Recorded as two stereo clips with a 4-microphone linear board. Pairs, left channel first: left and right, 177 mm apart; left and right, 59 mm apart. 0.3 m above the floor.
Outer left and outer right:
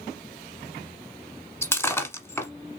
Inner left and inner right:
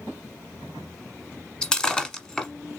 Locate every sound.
1.6 s breaking glass: 15° left (ahead or behind), 1.1 m